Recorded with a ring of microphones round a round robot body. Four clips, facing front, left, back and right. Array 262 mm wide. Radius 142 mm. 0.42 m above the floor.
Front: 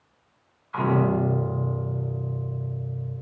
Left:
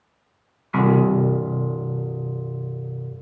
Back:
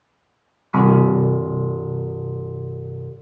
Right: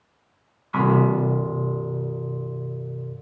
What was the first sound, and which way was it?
A piano, 160° left.